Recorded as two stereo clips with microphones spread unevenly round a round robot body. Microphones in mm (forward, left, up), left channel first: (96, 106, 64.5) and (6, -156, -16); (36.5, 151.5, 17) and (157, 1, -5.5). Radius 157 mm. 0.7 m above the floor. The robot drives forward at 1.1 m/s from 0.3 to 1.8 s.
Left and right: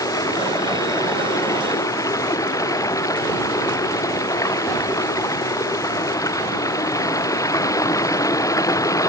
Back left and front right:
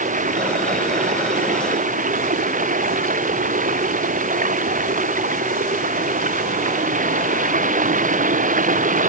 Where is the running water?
5° right.